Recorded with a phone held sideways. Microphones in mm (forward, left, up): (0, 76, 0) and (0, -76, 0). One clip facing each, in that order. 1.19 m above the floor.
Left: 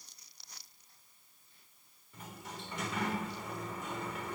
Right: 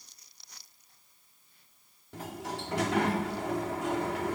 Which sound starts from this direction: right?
A sliding door, at 2.1 s.